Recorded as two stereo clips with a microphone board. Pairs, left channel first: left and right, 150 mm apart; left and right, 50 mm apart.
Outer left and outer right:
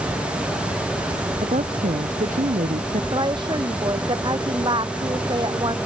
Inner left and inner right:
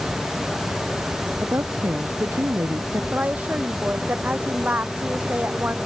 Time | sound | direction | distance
1.4 | a woman speaking | 60° right (ahead or behind) | ?
3.1 | a woman speaking | 30° right (ahead or behind) | ?